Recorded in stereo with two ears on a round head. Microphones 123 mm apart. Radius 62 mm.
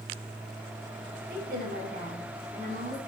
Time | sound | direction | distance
1.3 | a woman speaking | 75° right (ahead or behind) | 5 m